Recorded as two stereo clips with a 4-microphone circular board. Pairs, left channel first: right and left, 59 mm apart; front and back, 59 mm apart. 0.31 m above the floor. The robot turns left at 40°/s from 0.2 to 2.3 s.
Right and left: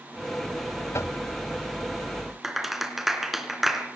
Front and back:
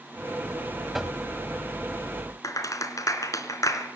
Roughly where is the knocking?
Right.